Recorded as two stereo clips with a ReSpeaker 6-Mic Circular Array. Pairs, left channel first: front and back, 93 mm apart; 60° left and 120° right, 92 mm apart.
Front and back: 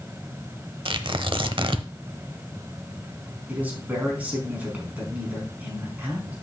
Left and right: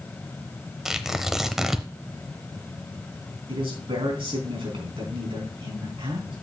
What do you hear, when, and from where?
0.8 s tearing paper: 155° left, 0.8 m
3.5 s a man speaking: 105° right, 4 m